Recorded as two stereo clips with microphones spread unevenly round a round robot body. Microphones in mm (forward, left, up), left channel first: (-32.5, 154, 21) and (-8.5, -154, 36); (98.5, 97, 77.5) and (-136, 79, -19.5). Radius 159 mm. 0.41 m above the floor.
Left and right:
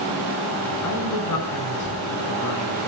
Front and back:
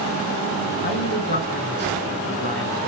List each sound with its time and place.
0.8 s a man speaking: 60° left, 4.5 m